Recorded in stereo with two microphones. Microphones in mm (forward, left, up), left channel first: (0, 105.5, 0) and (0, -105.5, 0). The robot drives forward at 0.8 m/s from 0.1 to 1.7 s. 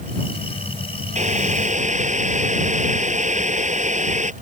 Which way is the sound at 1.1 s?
35° right (ahead or behind).